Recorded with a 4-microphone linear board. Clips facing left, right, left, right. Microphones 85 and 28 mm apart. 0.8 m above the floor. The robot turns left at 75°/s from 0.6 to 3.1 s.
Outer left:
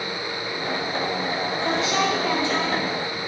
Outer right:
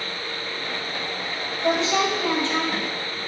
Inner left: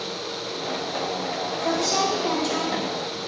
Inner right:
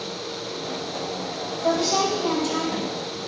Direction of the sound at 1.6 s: 135° right.